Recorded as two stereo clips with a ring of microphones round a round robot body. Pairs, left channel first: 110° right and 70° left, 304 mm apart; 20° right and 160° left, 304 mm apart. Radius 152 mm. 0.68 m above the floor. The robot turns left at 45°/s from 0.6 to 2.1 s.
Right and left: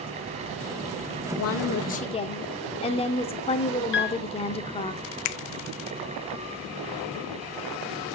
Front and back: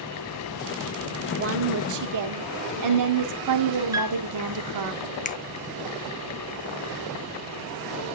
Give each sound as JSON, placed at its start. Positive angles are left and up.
{"t": 1.3, "sound": "a woman speaking", "azimuth_deg": -150, "distance_m": 1.6}
{"t": 3.9, "sound": "a piano", "azimuth_deg": -130, "distance_m": 1.0}
{"t": 5.2, "sound": "a finger snap", "azimuth_deg": -85, "distance_m": 0.7}